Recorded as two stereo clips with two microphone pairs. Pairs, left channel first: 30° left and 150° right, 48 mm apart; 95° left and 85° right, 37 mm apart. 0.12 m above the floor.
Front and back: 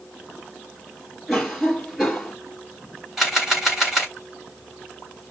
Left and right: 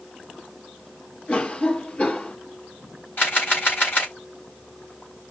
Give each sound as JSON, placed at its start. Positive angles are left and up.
{"t": 1.3, "sound": "a cough", "azimuth_deg": 130, "distance_m": 2.5}
{"t": 3.2, "sound": "a camera shutter", "azimuth_deg": 130, "distance_m": 3.5}